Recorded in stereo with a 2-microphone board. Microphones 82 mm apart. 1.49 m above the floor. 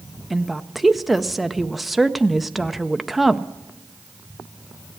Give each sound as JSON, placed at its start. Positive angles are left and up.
{"t": 0.3, "sound": "a woman speaking", "side_deg": 0, "distance_m": 0.5}